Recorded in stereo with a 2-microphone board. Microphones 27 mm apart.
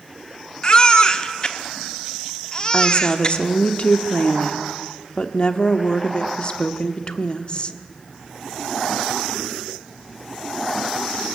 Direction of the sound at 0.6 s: 30° left (ahead or behind).